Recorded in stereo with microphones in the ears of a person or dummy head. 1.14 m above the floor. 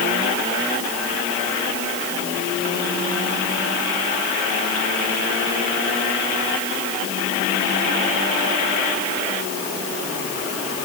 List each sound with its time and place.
Only background noise.